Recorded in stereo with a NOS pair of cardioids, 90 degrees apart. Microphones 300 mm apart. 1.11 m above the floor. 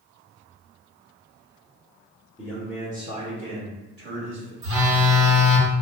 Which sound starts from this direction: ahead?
A man speaking, at 2.4 s.